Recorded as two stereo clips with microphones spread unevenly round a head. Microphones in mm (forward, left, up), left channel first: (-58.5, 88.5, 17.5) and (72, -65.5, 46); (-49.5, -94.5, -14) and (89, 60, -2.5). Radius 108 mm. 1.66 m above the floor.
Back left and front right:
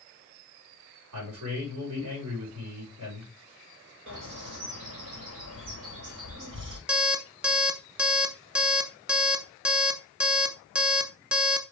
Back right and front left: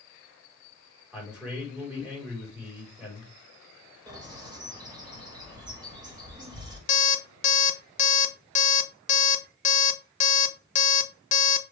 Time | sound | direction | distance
1.1 | a man speaking | 35° right | 4.5 m
4.1 | a bird | 20° right | 5 m
6.9 | an alarm clock | 120° right | 0.8 m